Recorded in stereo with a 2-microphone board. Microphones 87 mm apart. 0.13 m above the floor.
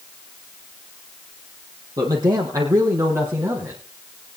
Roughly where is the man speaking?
Right.